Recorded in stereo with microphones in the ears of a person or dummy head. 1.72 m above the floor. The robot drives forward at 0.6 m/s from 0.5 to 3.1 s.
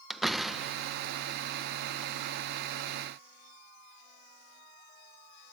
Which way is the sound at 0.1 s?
5° left (ahead or behind).